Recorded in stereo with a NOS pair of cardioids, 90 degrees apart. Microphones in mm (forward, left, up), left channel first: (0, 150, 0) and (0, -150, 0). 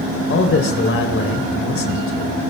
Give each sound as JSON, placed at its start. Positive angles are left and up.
{"t": 0.3, "sound": "a man speaking", "azimuth_deg": 45, "distance_m": 3.5}